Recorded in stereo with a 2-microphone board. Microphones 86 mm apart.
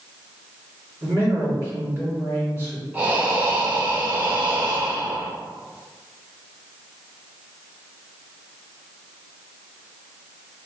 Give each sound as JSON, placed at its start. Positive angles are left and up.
{"t": 1.0, "sound": "a man speaking", "side_deg": -30, "distance_m": 2.0}
{"t": 2.9, "sound": "breathing", "side_deg": -20, "distance_m": 0.7}